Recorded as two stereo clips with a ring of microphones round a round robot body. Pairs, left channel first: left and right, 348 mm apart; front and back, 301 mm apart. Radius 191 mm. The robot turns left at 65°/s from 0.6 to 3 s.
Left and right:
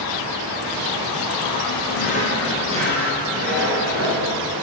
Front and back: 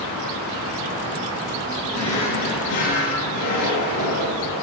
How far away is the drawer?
About 3 m.